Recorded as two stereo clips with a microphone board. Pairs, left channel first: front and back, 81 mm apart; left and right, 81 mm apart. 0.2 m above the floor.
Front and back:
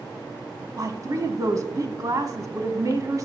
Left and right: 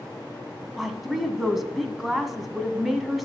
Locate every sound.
0.8 s a woman speaking: 175° right, 1.2 m